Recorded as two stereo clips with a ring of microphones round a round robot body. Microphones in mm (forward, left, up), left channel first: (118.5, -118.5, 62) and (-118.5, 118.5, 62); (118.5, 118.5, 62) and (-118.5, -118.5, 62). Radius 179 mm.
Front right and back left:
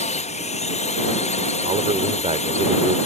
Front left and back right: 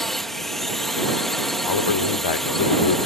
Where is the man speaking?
60° left.